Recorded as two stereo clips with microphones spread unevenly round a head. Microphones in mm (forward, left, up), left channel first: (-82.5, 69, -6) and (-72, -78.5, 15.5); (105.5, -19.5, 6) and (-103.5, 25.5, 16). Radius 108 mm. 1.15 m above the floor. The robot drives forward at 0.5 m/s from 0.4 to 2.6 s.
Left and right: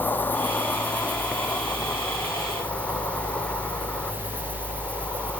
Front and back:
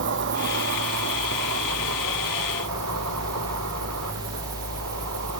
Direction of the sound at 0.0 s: 175° left.